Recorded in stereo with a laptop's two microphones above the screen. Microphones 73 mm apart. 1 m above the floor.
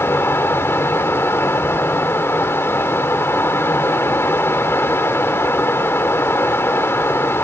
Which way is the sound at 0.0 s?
35° left (ahead or behind).